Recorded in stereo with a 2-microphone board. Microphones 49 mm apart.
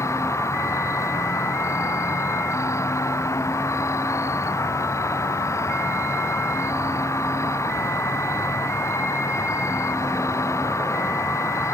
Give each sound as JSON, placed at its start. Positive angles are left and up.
{"t": 0.0, "sound": "an insect", "side_deg": 80}